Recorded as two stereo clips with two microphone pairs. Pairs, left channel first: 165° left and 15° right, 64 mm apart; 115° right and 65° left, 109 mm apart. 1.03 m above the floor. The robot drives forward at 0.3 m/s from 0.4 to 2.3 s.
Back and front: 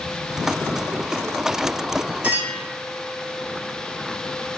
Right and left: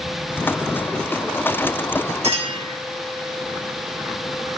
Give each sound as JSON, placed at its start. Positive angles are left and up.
{"t": 2.2, "sound": "a clink", "azimuth_deg": 55, "distance_m": 1.1}